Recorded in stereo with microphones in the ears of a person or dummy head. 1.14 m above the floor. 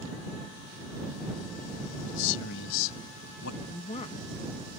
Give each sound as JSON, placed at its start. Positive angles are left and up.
{"t": 2.0, "sound": "a man speaking", "side_deg": 75}
{"t": 3.6, "sound": "a woman speaking", "side_deg": 30}